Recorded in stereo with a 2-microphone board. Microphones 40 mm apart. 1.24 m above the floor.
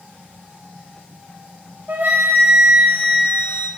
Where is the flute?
50° right (ahead or behind), 1.7 m.